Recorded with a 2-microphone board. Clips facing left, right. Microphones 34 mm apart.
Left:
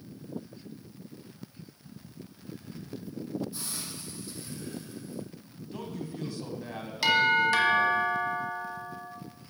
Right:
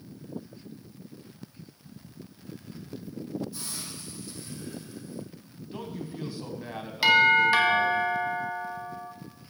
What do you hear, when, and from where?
3.5 s a hiss: 10° left (ahead or behind), 3 m
5.7 s a man speaking: 15° right (ahead or behind), 1.2 m
7.0 s a doorbell: 20° right (ahead or behind), 1.6 m